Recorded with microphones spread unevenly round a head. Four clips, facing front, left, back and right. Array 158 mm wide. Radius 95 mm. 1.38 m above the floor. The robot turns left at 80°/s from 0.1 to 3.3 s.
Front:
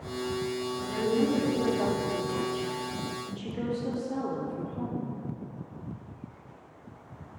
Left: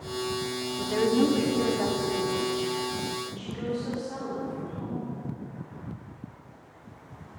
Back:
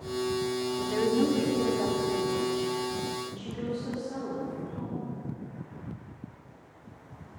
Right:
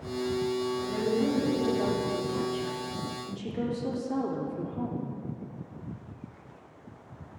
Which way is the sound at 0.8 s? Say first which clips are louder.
Left 8 dB, back 1 dB; 115° left.